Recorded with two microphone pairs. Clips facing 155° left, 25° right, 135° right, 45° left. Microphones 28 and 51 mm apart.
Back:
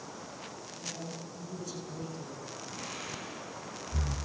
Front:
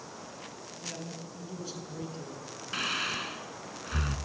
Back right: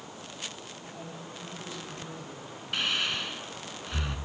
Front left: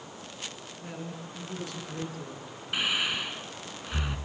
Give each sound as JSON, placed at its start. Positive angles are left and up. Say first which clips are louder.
{"t": 0.8, "sound": "a man speaking", "louder": "front 1 dB, front left 5 dB", "azimuth_deg": 40, "distance_m": 7.5}
{"t": 2.7, "sound": "breathing", "louder": "front 12 dB, front left 1 dB", "azimuth_deg": -35, "distance_m": 1.5}